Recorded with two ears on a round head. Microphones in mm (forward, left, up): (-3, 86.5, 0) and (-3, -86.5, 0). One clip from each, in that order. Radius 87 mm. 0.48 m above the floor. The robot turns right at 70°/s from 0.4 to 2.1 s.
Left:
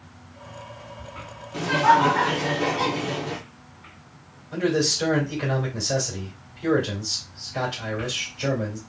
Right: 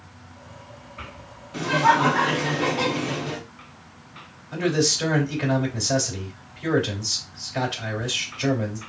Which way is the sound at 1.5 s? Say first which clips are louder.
Left 1 dB; 5° right (ahead or behind).